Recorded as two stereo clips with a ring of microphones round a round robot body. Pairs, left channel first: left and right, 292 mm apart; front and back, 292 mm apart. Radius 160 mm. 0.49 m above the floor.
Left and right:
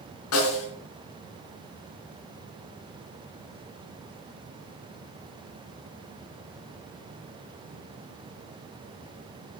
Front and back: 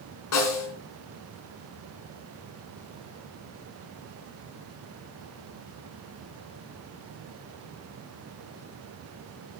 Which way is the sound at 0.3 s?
45° left.